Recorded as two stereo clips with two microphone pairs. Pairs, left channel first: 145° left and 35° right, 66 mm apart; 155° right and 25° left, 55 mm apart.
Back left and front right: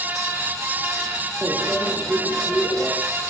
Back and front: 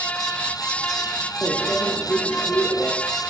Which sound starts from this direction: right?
A microwave, at 1.4 s.